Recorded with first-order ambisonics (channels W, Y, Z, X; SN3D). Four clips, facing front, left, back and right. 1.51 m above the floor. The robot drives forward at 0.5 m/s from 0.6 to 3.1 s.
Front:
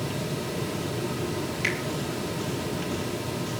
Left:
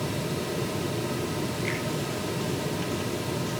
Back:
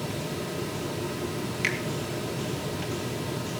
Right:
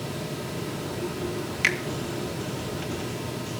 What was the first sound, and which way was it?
A finger snap, 100° right.